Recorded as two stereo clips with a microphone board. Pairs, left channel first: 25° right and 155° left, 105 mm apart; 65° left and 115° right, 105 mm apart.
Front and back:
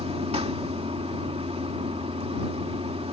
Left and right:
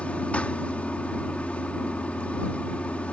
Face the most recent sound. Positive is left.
turn(degrees=145)